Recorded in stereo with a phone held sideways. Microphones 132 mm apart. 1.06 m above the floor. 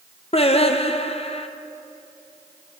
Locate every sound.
0.3 s singing: 45° left (ahead or behind), 0.6 m